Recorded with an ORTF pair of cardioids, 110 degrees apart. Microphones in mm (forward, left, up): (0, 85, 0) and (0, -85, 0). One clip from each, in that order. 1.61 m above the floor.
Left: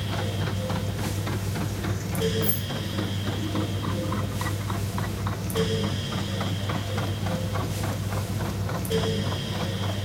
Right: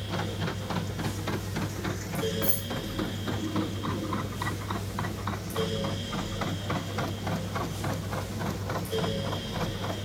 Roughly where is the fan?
Ahead left.